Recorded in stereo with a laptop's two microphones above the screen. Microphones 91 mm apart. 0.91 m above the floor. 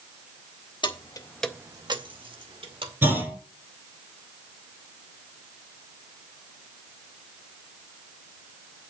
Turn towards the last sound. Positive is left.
turn(degrees=-20)  # may be behind; listen again after turning